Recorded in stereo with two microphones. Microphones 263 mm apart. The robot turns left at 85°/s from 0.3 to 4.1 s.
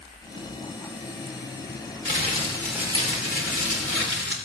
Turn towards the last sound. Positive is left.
turn(degrees=-120)